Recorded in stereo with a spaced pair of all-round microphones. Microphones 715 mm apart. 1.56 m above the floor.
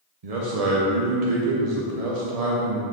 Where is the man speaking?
60° right (ahead or behind), 1.0 m.